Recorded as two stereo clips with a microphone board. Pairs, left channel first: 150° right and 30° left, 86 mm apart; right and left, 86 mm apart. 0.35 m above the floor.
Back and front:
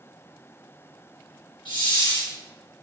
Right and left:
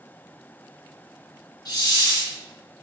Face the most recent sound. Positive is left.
turn(degrees=-135)